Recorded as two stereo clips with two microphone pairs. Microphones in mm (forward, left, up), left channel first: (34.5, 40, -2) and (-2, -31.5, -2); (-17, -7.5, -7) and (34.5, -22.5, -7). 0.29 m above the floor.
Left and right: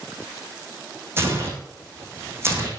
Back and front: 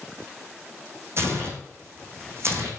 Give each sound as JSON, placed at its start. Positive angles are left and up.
{"t": 1.2, "sound": "tearing paper", "azimuth_deg": -60, "distance_m": 3.5}